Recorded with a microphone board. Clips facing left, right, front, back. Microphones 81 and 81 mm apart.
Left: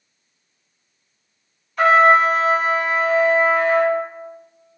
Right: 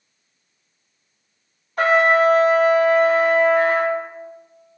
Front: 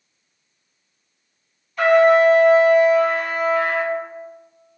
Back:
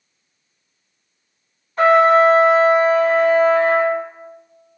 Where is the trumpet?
130° right, 0.6 m.